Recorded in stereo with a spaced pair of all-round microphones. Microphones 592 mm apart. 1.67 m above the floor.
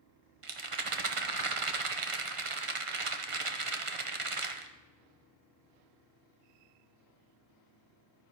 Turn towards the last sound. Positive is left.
turn(degrees=-60)  # may be behind; listen again after turning